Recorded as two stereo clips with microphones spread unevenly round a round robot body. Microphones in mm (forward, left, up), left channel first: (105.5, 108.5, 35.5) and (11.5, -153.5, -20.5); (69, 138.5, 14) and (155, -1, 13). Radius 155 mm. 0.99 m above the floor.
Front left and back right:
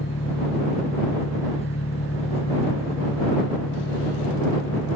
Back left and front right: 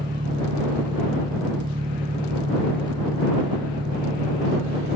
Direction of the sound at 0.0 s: Straight ahead.